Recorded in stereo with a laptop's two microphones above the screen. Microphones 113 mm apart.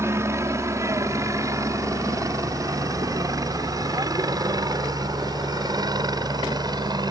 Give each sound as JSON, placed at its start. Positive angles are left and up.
{"t": 0.0, "sound": "a helicopter", "side_deg": -25}